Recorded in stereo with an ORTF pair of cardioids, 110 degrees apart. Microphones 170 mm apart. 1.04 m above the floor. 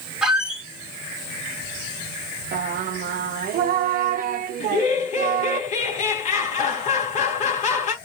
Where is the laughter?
45° left, 1.9 m.